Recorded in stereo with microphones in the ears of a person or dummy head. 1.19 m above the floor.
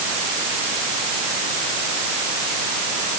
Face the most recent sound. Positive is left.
No sound to turn to.